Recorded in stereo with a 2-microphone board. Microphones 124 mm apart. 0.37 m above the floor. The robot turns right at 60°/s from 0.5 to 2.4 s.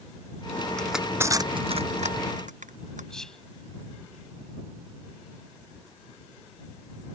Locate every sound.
0.8 s crushing: 5° left (ahead or behind); by 3.1 s 85° right
3.1 s whispering: 5° left (ahead or behind)